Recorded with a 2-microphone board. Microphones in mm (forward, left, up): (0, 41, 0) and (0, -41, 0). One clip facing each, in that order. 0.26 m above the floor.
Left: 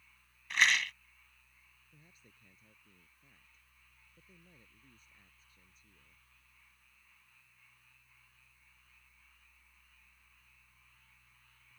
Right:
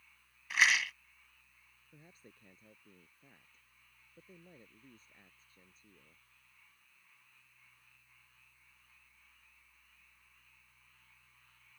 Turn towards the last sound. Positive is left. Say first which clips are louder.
# right 6 dB
turn(degrees=-35)  # may be behind; listen again after turning